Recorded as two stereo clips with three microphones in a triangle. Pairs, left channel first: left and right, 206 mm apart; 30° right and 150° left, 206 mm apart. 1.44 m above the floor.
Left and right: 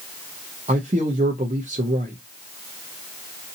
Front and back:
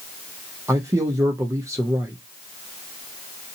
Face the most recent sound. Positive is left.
turn(degrees=-135)